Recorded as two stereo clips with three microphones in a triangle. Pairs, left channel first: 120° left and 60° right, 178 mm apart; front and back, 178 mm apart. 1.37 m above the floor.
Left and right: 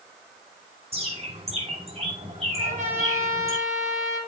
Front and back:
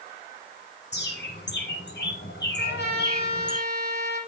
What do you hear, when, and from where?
0.9 s a bird: 5° right, 6.5 m
2.6 s a trumpet: 15° right, 7.5 m